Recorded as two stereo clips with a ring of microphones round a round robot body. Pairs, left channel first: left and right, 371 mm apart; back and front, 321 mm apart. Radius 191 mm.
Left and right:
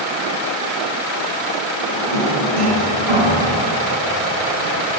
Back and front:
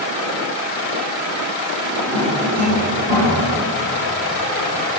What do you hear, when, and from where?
1.8 s a drawer: 75° right, 3.5 m